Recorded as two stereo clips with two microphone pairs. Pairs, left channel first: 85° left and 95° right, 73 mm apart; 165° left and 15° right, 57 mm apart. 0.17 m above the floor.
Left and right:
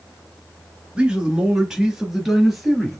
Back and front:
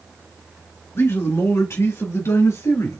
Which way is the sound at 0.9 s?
165° right.